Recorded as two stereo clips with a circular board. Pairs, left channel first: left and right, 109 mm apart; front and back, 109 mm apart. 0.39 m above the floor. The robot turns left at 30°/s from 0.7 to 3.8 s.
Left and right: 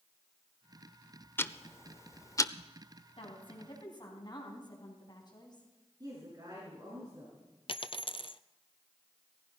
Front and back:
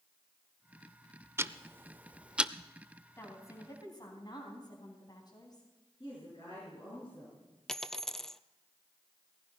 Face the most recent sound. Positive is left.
turn(degrees=85)